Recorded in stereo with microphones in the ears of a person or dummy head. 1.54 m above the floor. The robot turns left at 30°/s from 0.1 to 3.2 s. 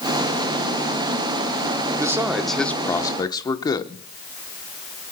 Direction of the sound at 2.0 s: 165° right.